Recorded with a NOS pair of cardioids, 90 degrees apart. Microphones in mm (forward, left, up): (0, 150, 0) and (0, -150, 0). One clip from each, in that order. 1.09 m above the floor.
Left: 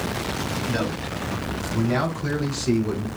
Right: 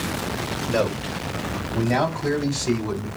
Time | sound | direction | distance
0.7 | a man speaking | 30° right | 2.5 m